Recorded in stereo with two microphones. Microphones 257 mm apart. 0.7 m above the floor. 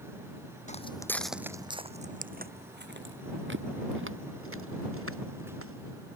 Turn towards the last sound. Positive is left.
turn(degrees=-60)  # may be behind; listen again after turning